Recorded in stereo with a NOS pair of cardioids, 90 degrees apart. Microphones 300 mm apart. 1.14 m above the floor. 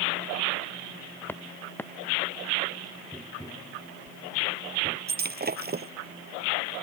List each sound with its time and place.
1.3 s footsteps: 5° left
3.1 s tapping: straight ahead
5.1 s breaking glass: 30° right